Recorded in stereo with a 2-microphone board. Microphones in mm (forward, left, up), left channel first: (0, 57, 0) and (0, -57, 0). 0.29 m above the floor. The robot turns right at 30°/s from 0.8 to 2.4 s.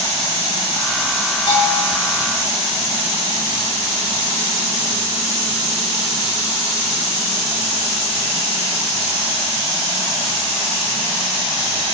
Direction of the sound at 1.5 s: 40° left (ahead or behind).